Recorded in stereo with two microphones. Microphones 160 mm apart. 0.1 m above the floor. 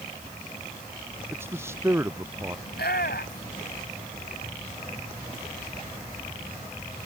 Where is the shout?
80° left.